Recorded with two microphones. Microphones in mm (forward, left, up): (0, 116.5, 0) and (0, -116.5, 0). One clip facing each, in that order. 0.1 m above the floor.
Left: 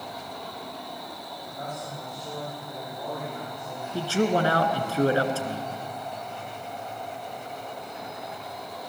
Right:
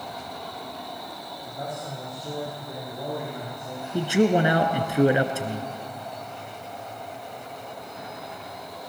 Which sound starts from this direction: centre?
A man speaking, at 3.9 s.